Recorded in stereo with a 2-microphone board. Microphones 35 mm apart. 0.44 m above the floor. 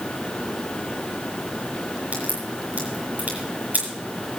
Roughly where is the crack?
Right.